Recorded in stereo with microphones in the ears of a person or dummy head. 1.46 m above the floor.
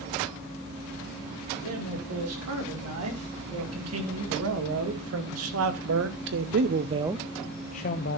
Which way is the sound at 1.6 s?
90° right.